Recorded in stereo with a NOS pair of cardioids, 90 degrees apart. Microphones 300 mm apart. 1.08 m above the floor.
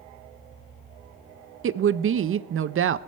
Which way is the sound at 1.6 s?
45° right.